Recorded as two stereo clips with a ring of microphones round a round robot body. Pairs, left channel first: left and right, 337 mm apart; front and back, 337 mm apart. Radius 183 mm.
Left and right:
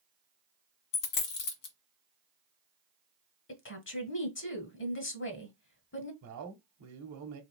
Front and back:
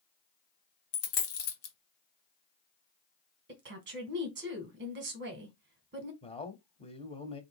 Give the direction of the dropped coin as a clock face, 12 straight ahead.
10 o'clock.